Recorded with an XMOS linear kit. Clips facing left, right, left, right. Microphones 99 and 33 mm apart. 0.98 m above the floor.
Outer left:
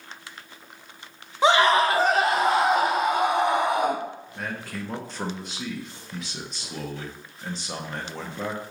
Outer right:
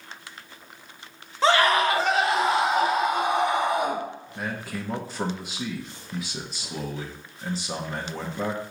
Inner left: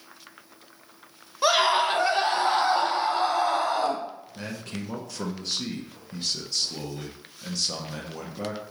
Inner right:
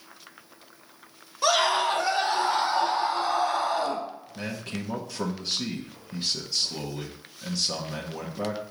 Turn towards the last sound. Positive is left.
turn(degrees=-5)  # may be behind; listen again after turning